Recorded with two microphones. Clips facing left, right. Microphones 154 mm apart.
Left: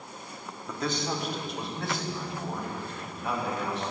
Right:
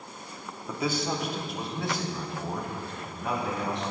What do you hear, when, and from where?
0.7 s a man speaking: 10° right (ahead or behind), 1.4 m; by 3.8 s 5° left (ahead or behind), 6 m